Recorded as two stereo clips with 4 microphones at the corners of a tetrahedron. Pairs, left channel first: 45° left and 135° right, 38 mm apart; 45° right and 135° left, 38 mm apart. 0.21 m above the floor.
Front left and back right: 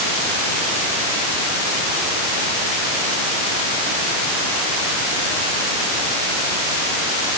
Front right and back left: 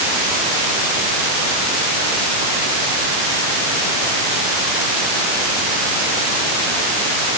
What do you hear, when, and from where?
Only background noise.